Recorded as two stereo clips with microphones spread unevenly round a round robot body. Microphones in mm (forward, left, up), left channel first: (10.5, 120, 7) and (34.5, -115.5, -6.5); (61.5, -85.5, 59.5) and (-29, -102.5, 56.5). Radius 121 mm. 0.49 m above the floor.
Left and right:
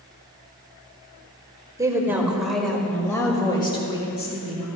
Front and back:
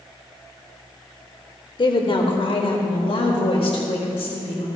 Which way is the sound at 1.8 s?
10° right.